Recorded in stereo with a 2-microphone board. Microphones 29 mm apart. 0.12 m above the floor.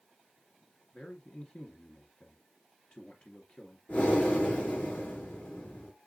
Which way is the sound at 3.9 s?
80° left.